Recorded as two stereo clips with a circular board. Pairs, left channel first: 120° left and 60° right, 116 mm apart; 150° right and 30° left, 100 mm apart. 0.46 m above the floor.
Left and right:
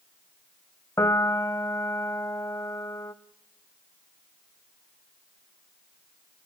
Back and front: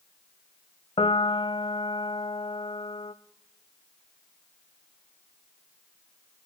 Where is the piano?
175° right, 0.8 m.